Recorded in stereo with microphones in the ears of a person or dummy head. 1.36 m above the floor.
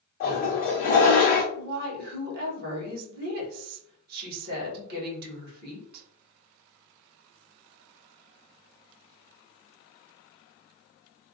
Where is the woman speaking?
50° right (ahead or behind), 1.2 m.